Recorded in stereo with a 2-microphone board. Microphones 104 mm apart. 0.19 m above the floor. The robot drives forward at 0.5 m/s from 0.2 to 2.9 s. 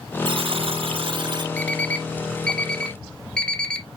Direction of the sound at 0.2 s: 55° right (ahead or behind).